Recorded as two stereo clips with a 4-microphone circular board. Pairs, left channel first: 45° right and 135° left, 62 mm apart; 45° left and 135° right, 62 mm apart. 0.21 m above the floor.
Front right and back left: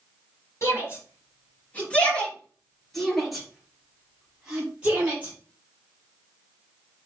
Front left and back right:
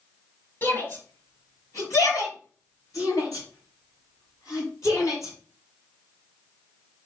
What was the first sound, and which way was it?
A shout, 5° right.